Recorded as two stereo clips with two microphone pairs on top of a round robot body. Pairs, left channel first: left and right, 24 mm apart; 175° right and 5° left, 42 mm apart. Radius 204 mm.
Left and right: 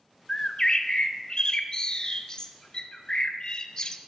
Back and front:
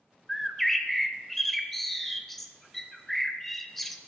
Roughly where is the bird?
Behind left.